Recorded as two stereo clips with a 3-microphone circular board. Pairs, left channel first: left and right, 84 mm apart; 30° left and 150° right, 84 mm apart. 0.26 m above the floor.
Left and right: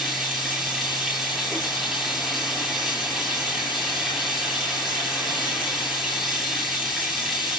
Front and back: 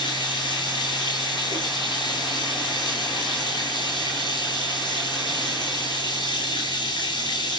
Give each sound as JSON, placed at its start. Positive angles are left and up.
{"t": 0.0, "sound": "running water", "azimuth_deg": 5, "distance_m": 8.5}